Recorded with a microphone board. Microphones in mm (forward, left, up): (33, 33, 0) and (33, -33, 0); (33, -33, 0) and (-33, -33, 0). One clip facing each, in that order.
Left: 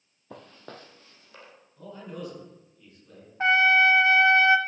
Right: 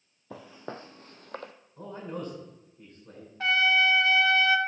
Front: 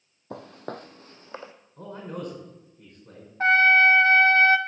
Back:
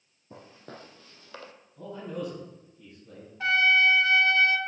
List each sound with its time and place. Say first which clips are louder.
0.3 s footsteps: right 4 dB, front 9 dB; 5° right, 1.0 m; by 1.5 s 70° right, 1.1 m
1.8 s a man speaking: right 2 dB, even; 45° right, 5 m
3.4 s a trumpet: left 4 dB, front 5 dB; 35° left, 0.6 m